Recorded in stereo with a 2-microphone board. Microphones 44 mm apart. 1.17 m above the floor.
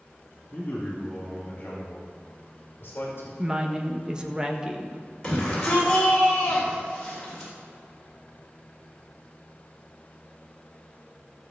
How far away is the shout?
About 4 m.